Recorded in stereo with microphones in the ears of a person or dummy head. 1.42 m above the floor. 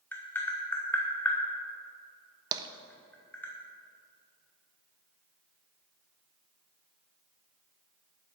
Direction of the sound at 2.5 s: 25° right (ahead or behind).